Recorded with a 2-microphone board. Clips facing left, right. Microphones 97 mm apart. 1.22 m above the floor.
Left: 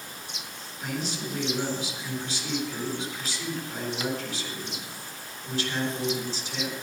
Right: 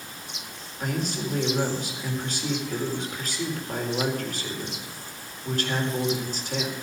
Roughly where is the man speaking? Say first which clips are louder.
Right 4 dB; right.